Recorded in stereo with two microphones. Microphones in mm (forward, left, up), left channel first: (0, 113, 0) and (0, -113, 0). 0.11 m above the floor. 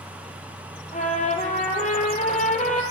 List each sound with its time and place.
0.9 s a trumpet: 35° left (ahead or behind), 1.1 m